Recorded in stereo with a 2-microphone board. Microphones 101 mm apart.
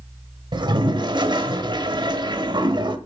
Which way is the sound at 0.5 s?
50° right (ahead or behind).